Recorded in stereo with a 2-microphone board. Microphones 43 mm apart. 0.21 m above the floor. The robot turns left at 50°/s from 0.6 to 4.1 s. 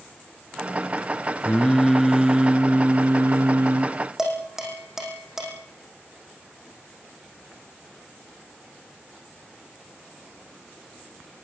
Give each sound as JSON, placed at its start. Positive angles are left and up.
{"t": 1.4, "sound": "singing", "azimuth_deg": 25, "distance_m": 1.7}
{"t": 4.2, "sound": "dishes clattering", "side_deg": -10, "distance_m": 7.0}